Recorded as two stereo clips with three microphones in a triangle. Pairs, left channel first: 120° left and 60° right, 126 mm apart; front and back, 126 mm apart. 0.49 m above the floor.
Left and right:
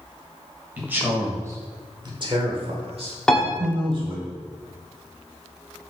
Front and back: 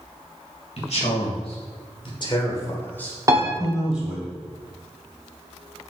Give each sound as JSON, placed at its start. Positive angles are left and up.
{"t": 0.8, "sound": "a man speaking", "azimuth_deg": 15, "distance_m": 2.5}
{"t": 3.3, "sound": "a piano", "azimuth_deg": -160, "distance_m": 1.3}